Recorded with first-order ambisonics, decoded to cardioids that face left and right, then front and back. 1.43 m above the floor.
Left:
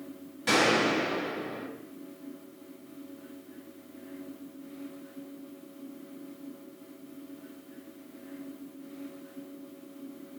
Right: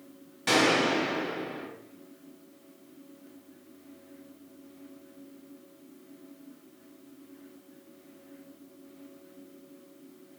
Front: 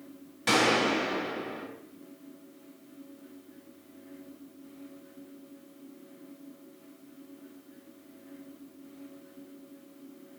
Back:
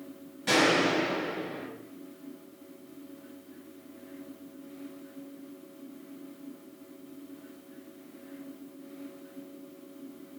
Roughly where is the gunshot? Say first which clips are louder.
Even, even; ahead.